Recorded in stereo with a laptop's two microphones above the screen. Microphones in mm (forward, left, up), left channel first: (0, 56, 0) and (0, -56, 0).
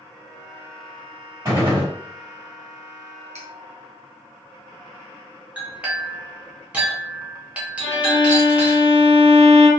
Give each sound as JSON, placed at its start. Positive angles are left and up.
{"t": 1.4, "sound": "a gunshot", "side_deg": -25, "distance_m": 1.8}
{"t": 3.4, "sound": "cutlery clinking", "side_deg": -80, "distance_m": 0.6}
{"t": 5.6, "sound": "a clink", "side_deg": -10, "distance_m": 0.6}
{"t": 7.8, "sound": "a violin", "side_deg": 45, "distance_m": 0.6}